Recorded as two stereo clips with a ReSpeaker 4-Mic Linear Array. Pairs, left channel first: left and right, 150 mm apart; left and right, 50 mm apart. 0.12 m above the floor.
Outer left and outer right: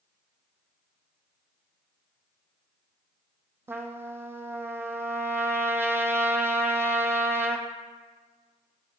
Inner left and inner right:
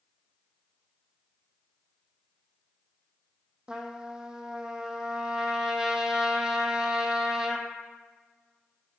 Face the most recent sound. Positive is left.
turn(degrees=-15)  # may be behind; listen again after turning